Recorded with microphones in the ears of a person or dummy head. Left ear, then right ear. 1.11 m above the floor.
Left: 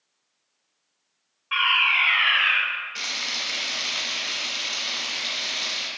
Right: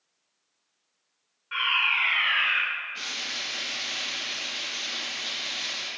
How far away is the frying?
About 1.4 m.